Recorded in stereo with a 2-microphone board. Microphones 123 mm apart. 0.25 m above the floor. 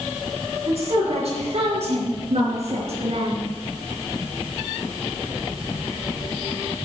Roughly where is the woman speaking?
Right.